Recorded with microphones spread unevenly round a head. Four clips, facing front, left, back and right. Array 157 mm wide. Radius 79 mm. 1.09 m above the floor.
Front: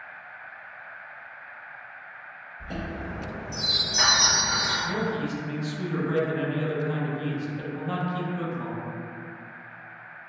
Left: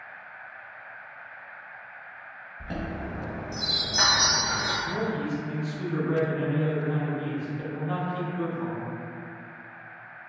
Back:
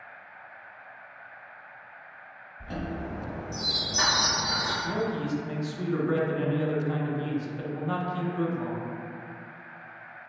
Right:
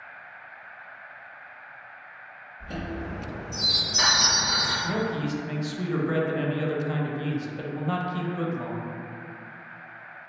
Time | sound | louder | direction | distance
2.6 | a chime | even, even | 90° left | 1.2 m
4.8 | a man speaking | right 1 dB, front 1 dB | 75° right | 0.6 m